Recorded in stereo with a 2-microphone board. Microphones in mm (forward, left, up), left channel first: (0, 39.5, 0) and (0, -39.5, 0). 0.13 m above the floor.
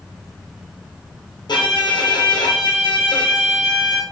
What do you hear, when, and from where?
1.5 s a violin: 70° left (ahead or behind), 1.3 m